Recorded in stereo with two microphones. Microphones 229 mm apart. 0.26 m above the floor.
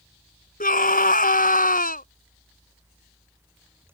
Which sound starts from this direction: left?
A scream, at 0.6 s.